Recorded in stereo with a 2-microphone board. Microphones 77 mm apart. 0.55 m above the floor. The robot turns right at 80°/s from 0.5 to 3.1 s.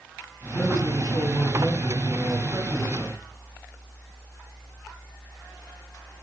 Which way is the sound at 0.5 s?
70° left.